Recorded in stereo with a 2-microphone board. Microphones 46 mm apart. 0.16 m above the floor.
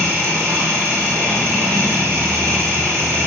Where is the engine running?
70° right (ahead or behind), 3 m.